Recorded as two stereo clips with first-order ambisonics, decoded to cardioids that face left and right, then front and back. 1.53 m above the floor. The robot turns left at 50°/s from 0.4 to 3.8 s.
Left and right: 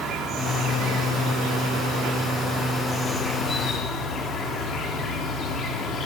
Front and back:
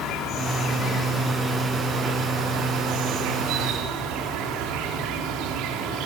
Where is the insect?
40° right, 3.5 m; by 6.1 s 150° left, 3.5 m.